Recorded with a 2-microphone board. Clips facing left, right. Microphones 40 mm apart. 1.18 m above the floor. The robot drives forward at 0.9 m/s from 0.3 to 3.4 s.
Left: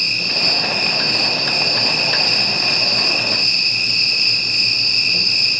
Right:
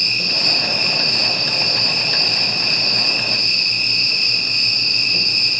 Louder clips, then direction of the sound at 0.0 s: Left 1 dB; 35° left (ahead or behind).